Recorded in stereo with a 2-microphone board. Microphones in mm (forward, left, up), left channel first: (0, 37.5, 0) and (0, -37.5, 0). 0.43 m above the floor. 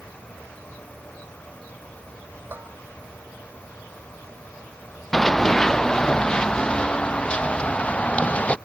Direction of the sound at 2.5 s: 25° right (ahead or behind).